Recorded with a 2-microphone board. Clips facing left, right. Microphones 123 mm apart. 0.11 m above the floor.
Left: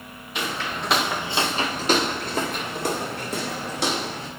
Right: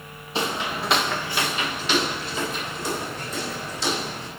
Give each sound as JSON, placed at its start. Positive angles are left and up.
{"t": 0.3, "sound": "footsteps", "side_deg": -30, "distance_m": 1.2}